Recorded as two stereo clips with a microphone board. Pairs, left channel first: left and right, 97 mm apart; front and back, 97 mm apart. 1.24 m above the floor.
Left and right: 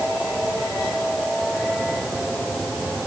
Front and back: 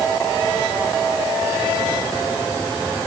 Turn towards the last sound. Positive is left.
No sound to turn to.